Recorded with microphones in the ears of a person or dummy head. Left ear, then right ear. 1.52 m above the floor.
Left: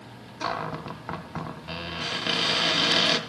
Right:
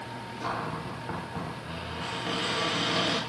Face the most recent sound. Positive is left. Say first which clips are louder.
# left 3 dB
turn(degrees=45)  # may be behind; listen again after turning